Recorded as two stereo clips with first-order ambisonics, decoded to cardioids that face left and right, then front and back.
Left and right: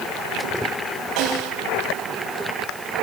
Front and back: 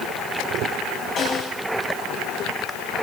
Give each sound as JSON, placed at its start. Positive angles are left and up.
{"t": 1.2, "sound": "a snare drum", "azimuth_deg": -55, "distance_m": 8.5}